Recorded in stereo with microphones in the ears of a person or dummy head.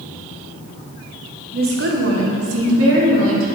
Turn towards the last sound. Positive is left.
turn(degrees=-70)  # may be behind; listen again after turning